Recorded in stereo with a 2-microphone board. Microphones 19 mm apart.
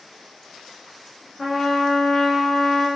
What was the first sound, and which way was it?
A trumpet, centre (ahead or behind).